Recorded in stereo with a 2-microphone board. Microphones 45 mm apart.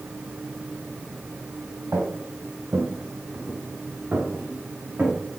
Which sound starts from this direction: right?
Footsteps, at 1.9 s.